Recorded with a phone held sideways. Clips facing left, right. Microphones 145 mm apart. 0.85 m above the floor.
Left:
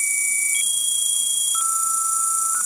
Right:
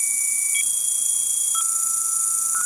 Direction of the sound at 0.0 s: 25° left (ahead or behind).